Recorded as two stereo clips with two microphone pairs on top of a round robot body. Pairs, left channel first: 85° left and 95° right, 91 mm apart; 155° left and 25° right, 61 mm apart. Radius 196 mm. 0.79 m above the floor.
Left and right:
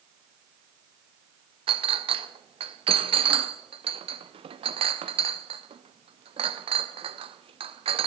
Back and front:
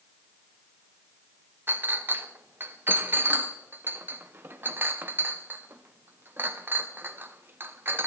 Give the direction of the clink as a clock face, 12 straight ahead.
3 o'clock.